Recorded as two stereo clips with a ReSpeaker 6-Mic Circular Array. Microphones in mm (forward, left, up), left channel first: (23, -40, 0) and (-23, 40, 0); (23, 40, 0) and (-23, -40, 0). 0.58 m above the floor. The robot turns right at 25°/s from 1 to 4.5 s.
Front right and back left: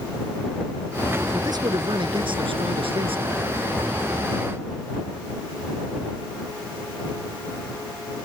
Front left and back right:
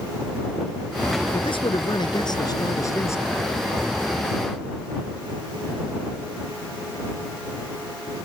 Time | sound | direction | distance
1.3 | a man speaking | 75° left | ?